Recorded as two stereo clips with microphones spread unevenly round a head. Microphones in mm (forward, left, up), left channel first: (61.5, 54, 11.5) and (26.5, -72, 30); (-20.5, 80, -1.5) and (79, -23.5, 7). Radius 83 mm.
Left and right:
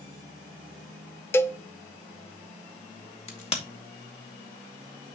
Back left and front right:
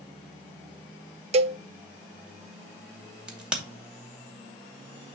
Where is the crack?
35° left, 2.5 m.